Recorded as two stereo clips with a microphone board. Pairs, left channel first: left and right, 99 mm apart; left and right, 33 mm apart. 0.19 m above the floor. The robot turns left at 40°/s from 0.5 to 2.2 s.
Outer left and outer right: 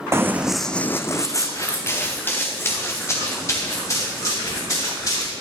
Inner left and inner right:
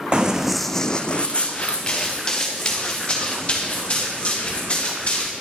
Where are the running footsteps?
25° right (ahead or behind), 0.8 m; by 5.3 s 35° left (ahead or behind), 4 m.